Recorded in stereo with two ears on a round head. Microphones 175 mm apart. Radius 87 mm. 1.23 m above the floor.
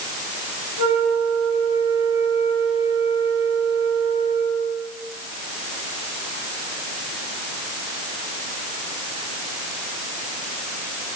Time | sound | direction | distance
0.8 | a flute | 85° right | 5 m